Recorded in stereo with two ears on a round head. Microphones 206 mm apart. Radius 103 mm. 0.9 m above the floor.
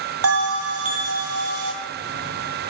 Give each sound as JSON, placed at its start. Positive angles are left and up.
{"t": 0.2, "sound": "a bell", "side_deg": -70, "distance_m": 1.5}